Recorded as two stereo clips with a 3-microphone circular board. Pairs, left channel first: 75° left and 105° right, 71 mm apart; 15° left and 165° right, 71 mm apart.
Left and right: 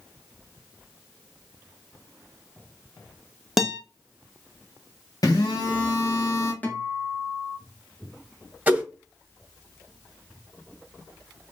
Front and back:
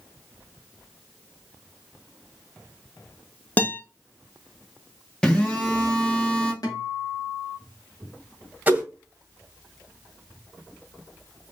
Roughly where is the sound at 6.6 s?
Ahead.